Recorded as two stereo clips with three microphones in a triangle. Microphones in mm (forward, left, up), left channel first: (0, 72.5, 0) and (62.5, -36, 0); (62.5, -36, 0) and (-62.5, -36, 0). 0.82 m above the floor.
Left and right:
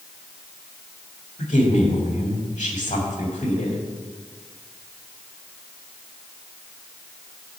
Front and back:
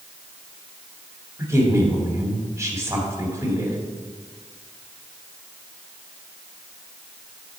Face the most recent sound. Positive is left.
turn(degrees=120)